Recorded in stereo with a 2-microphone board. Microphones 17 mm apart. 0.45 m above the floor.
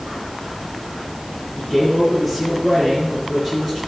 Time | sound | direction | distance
1.6 | a man speaking | centre (ahead or behind) | 5.5 m